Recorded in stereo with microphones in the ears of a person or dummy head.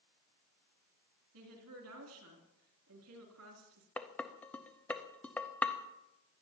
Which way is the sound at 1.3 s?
75° right (ahead or behind).